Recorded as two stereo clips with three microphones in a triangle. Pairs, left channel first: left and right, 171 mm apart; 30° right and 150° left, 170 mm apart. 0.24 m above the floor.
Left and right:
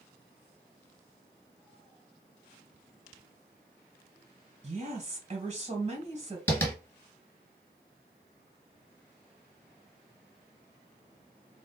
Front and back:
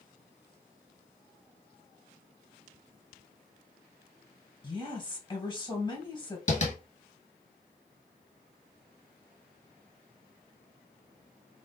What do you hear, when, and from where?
4.6 s a woman speaking: 75° right, 1.4 m
6.5 s tapping: 10° left, 1.4 m